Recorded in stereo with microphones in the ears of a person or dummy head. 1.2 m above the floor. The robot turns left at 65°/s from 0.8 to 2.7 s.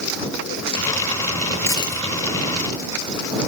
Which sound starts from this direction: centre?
A dropped coin, at 1.7 s.